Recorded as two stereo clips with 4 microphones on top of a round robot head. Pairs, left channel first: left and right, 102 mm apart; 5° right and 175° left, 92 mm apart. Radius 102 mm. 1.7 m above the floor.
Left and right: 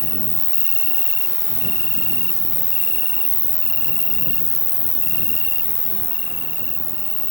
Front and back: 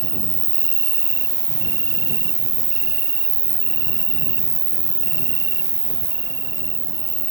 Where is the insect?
155° left.